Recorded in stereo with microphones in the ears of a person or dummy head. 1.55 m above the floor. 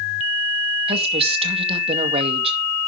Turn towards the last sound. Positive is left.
turn(degrees=-30)  # may be behind; listen again after turning